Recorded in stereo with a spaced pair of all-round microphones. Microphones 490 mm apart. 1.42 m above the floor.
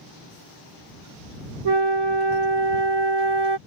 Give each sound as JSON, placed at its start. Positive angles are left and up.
{"t": 1.6, "sound": "a flute", "side_deg": -60}